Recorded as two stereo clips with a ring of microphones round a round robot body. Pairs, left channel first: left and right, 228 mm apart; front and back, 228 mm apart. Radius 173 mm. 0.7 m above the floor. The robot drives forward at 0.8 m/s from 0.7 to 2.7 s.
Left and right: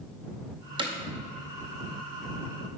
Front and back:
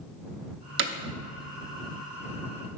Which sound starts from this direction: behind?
Hammering, at 0.8 s.